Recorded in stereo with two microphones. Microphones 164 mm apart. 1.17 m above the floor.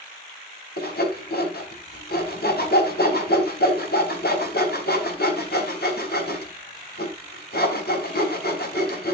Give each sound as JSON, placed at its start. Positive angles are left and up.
{"t": 0.8, "sound": "sawing", "side_deg": 70, "distance_m": 4.5}